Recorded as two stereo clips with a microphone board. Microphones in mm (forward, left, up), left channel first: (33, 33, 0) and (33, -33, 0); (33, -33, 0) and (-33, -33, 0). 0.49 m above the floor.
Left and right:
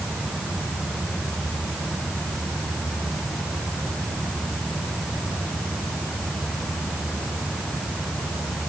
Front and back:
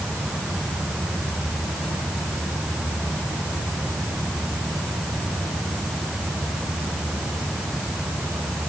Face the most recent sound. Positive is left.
No sound to turn to.